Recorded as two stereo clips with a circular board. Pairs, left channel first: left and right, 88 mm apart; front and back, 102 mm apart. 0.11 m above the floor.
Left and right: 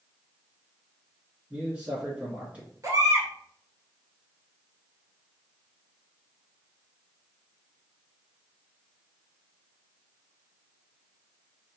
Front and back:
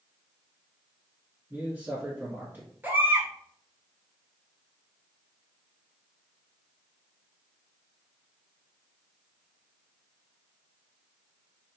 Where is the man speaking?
140° right, 1.5 m.